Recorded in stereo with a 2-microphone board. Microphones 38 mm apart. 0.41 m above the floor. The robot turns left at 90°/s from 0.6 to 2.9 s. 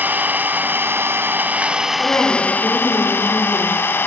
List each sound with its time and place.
0.0 s an engine running: 50° right, 0.7 m; by 4.1 s 105° left, 0.7 m
2.0 s a woman speaking: 115° left, 7.5 m; by 4.1 s 30° left, 7.5 m